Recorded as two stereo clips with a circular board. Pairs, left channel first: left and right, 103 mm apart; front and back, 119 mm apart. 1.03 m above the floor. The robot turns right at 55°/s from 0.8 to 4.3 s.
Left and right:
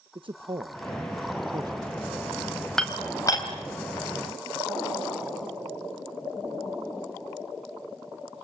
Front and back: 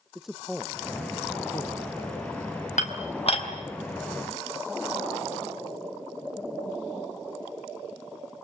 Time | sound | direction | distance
0.1 | a man speaking | 95° right | 0.8 m
2.8 | dishes clattering | 5° left | 4 m